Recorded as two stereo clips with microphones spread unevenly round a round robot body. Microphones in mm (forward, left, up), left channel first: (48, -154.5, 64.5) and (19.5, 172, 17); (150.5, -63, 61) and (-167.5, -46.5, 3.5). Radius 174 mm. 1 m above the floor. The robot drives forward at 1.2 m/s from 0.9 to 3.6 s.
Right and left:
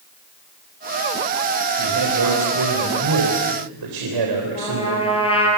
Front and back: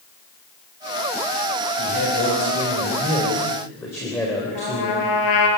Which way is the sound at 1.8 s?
55° left.